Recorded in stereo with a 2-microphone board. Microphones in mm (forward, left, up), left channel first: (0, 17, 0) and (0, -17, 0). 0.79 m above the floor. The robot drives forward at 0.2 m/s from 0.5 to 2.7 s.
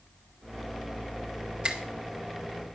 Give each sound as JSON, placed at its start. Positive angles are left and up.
{"t": 1.6, "sound": "a finger snap", "side_deg": -30, "distance_m": 2.0}